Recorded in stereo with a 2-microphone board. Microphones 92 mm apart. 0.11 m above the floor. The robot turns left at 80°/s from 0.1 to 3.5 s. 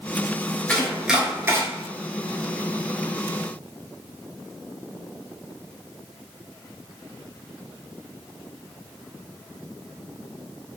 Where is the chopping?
15° left (ahead or behind), 0.6 m; by 1.6 s 30° right (ahead or behind), 0.6 m.